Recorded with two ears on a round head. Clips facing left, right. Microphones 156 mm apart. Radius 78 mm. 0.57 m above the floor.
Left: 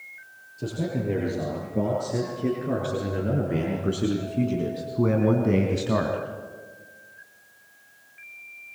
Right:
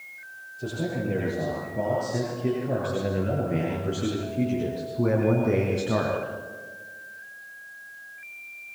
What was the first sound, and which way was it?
A man speaking, 85° left.